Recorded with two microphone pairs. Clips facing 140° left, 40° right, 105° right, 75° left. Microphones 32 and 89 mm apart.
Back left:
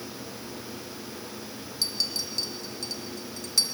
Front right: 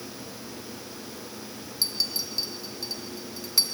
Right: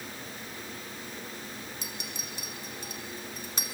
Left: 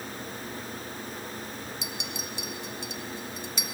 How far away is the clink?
About 1.6 m.